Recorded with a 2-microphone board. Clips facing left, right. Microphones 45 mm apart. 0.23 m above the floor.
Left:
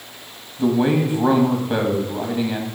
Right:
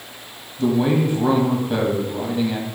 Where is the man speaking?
20° left (ahead or behind), 1.2 m.